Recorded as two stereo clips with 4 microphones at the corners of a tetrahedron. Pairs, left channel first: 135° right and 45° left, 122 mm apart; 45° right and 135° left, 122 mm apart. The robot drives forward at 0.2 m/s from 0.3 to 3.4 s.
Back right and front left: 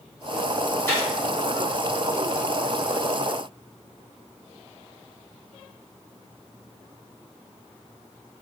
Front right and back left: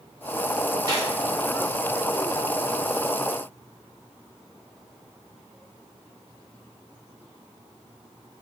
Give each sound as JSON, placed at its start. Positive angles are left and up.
{"t": 0.9, "sound": "a gunshot", "azimuth_deg": 165, "distance_m": 1.4}